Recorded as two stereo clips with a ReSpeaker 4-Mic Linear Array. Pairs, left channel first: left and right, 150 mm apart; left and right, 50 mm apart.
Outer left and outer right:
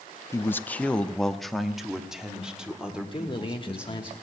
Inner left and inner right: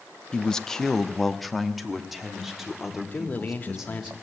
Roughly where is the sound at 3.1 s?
Left.